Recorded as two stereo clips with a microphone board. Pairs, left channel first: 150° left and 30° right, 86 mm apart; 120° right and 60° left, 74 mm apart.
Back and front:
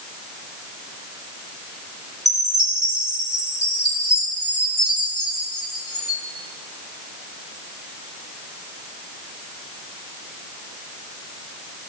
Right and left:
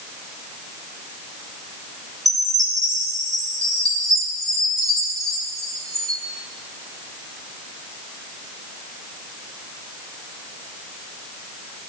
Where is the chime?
100° left, 5.5 m.